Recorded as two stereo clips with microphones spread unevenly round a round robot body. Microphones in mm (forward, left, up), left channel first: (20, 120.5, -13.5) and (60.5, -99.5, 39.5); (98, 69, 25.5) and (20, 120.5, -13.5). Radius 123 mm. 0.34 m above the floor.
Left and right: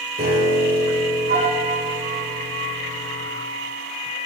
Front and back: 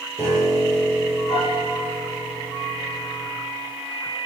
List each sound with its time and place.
0.2 s a piano: 140° right, 8.5 m